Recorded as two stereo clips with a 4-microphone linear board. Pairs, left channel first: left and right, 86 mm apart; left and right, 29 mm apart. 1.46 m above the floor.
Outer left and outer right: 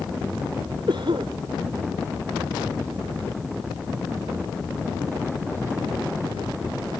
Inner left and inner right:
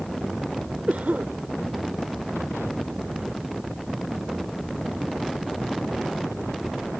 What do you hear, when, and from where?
0.9 s a cough: 80° right